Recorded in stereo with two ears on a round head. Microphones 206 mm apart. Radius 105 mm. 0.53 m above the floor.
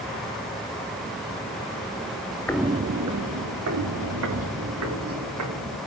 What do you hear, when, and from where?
2.5 s footsteps: 10° left (ahead or behind), 0.5 m; by 5.8 s 80° right, 4.5 m